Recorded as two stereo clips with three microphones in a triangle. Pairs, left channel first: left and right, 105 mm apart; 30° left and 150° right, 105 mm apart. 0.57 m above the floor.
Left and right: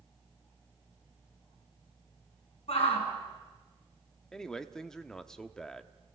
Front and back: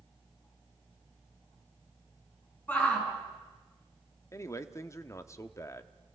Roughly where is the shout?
Left.